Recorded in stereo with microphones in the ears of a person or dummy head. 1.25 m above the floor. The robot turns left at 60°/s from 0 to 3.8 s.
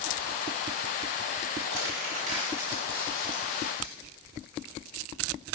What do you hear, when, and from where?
1.6 s crumpling: 75° right (ahead or behind), 3.5 m; by 3.9 s 55° left (ahead or behind), 3.5 m